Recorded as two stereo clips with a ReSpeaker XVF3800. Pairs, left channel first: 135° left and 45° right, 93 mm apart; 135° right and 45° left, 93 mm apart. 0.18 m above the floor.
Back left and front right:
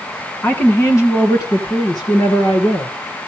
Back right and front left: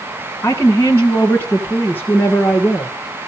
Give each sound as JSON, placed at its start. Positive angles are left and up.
{"t": 0.4, "sound": "a woman speaking", "azimuth_deg": -170, "distance_m": 1.5}